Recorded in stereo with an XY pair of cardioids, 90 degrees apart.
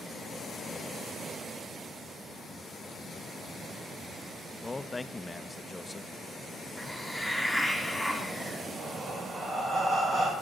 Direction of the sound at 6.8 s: 5° right.